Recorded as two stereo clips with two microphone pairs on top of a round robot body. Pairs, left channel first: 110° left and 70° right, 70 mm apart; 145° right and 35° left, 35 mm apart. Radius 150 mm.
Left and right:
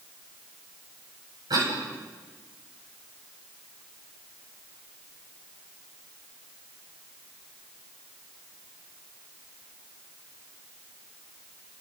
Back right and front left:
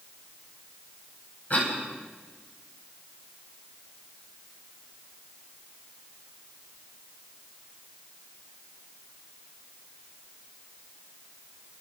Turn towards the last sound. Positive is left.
turn(degrees=-100)